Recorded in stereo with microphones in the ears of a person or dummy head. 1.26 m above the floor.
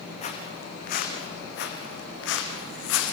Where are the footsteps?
35° left (ahead or behind), 4 m; by 3.1 s 75° left (ahead or behind), 4.5 m.